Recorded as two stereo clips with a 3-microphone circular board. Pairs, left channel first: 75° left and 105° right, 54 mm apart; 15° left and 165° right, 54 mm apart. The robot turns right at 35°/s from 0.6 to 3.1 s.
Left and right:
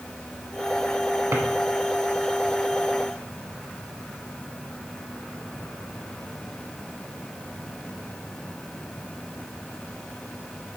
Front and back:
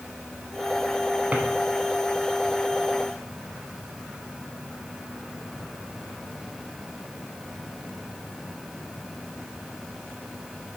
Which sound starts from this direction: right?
A drawer, at 1.3 s.